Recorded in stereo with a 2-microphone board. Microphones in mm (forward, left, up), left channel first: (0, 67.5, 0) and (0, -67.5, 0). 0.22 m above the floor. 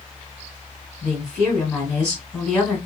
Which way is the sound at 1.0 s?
5° left (ahead or behind).